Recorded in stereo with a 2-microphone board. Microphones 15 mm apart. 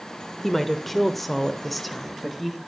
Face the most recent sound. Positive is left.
turn(degrees=0)  # may be behind; listen again after turning